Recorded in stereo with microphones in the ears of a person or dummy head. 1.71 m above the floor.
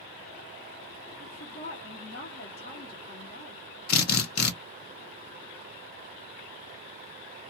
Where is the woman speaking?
45° left (ahead or behind), 1.0 m.